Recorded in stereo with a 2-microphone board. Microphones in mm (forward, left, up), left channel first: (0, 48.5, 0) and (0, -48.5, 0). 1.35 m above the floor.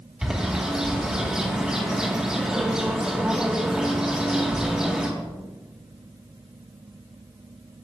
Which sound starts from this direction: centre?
A bird, at 0.2 s.